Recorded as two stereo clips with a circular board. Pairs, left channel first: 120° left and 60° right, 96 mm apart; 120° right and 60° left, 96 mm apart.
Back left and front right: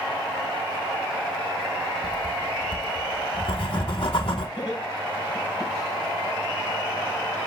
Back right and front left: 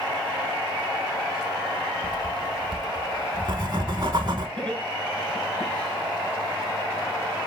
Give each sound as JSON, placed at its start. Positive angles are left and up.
{"t": 2.0, "sound": "writing", "azimuth_deg": 100, "distance_m": 1.2}
{"t": 4.6, "sound": "laughter", "azimuth_deg": 165, "distance_m": 4.0}